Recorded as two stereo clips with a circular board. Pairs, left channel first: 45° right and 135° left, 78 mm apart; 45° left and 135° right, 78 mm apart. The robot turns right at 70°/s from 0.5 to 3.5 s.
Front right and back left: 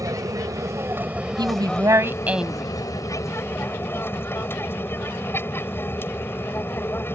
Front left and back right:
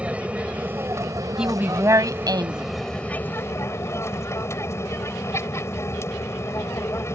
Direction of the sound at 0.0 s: 155° left.